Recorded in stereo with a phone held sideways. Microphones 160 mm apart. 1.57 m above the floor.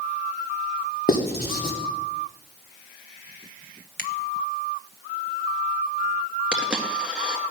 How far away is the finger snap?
About 1.4 m.